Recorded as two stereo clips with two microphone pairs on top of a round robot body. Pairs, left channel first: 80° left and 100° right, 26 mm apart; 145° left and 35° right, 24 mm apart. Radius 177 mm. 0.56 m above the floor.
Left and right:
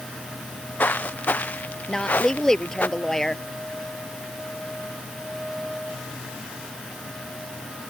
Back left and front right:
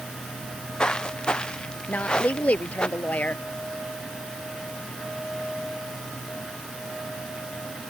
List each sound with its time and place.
0.4 s footsteps: 90° left; by 2.9 s 95° left
1.9 s a woman speaking: 155° left